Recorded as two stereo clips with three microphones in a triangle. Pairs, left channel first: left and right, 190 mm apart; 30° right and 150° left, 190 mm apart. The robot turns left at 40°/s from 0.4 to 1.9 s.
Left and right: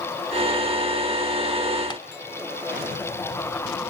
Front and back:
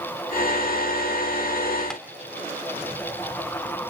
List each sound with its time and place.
1.9 s tapping: 50° left, 1.3 m